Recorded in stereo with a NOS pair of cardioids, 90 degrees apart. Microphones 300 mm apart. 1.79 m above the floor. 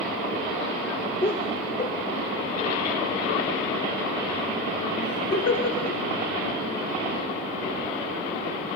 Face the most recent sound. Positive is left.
turn(degrees=55)